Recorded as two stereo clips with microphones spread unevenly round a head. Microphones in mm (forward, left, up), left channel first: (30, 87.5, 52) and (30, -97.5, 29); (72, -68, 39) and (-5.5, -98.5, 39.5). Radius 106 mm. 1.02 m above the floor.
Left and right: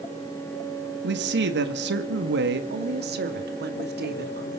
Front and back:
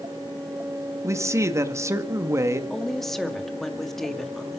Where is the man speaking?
105° right, 2.0 m.